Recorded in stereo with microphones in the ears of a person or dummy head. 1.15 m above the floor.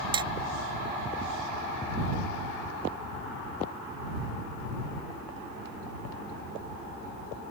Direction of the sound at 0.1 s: 25° right (ahead or behind).